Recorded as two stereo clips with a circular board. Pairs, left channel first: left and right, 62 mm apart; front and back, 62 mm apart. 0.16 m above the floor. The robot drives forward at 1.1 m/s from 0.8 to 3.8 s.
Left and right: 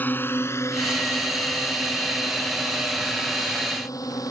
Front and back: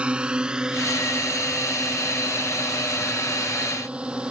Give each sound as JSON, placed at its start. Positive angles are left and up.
{"t": 0.0, "sound": "a drone", "azimuth_deg": 120}